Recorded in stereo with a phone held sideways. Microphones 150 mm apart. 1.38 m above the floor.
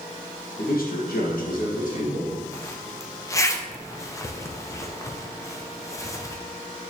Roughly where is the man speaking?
Left.